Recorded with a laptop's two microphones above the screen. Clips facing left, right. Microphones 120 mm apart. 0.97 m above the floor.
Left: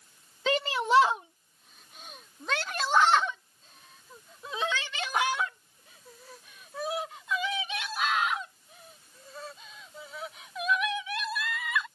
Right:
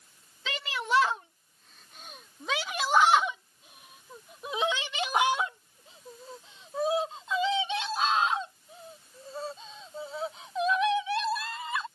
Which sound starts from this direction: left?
A shout, at 0.5 s.